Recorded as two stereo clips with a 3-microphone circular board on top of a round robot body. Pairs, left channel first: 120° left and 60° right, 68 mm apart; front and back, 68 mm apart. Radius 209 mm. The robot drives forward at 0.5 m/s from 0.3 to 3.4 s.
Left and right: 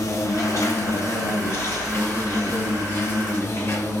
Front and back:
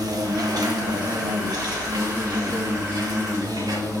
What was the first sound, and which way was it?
An insect, 160° left.